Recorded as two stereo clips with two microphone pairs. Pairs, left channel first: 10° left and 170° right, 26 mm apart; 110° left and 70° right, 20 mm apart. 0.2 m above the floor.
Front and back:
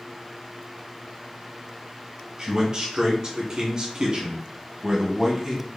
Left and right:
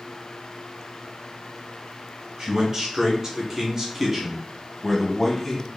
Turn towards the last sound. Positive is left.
turn(degrees=155)